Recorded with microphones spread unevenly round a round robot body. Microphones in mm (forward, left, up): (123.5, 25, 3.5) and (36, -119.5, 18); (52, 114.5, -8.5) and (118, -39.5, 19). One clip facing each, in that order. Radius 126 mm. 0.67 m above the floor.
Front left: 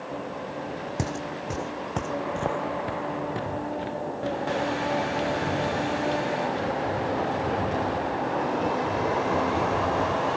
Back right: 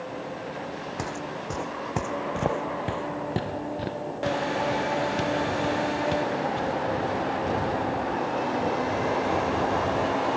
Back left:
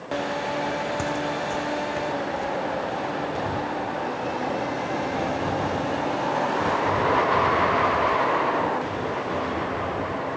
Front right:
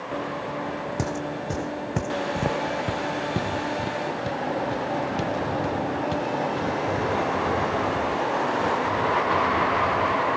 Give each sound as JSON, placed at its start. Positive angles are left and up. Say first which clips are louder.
{"t": 1.0, "sound": "footsteps", "louder": "front left 2 dB, back left 2 dB", "azimuth_deg": -5}